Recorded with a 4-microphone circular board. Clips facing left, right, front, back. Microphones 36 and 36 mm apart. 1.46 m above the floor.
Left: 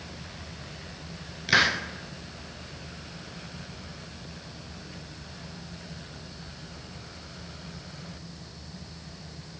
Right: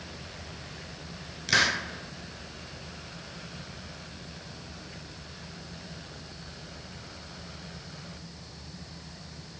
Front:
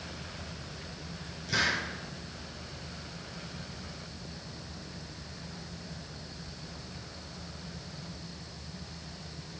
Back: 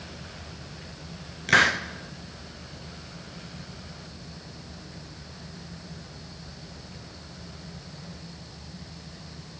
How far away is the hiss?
About 0.7 m.